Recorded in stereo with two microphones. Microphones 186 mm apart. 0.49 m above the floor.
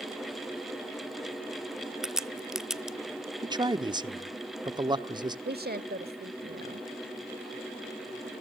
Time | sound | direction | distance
2.0 | a crack | 5° right (ahead or behind) | 0.8 m
3.4 | a man speaking | 25° right (ahead or behind) | 0.8 m
5.5 | a woman speaking | 60° right (ahead or behind) | 1.5 m